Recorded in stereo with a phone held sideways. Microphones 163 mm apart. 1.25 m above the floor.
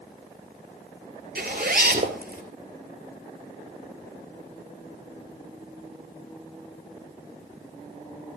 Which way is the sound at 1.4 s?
75° right (ahead or behind).